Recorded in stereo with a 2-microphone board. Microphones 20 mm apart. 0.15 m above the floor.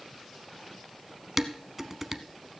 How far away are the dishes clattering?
About 0.7 m.